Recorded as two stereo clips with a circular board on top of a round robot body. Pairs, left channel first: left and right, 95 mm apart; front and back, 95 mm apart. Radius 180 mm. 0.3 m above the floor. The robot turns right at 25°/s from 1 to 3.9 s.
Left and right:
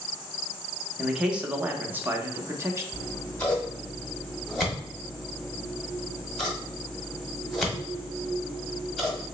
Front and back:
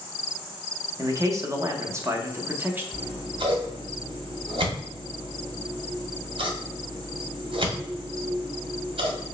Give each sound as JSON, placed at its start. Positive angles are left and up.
{"t": 1.0, "sound": "a man speaking", "azimuth_deg": -170, "distance_m": 1.0}
{"t": 2.9, "sound": "scissors", "azimuth_deg": 155, "distance_m": 1.3}